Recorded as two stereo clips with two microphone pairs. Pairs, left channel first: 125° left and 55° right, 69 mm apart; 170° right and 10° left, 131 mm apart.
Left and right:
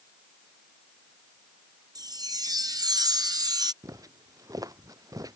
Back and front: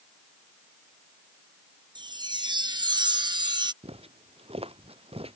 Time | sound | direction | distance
1.9 | a chime | 40° right | ?
3.8 | footsteps | 30° right | ?